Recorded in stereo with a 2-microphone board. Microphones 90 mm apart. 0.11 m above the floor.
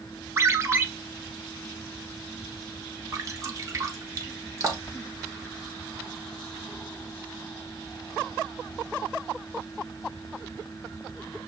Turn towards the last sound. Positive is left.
turn(degrees=-35)  # may be behind; listen again after turning